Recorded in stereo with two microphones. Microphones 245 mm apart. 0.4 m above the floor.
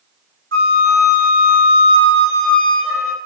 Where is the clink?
I don't hear a clink.